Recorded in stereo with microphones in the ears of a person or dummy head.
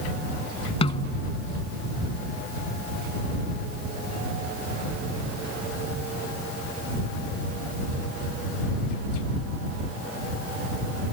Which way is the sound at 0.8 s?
35° left (ahead or behind).